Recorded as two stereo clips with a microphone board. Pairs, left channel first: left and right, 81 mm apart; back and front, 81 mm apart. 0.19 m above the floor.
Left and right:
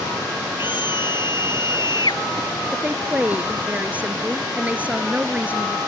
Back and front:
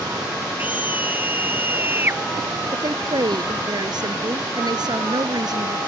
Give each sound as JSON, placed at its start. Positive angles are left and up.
{"t": 0.6, "sound": "a scream", "azimuth_deg": 70}
{"t": 2.7, "sound": "a woman speaking", "azimuth_deg": -20}